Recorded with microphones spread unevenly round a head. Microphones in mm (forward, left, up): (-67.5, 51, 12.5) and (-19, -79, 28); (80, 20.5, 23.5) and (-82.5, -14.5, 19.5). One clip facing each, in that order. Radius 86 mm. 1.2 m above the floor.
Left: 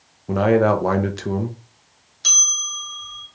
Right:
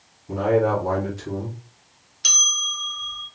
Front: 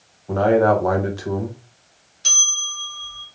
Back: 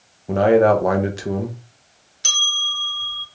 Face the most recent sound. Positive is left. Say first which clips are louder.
# right 2 dB, back 4 dB
turn(degrees=-145)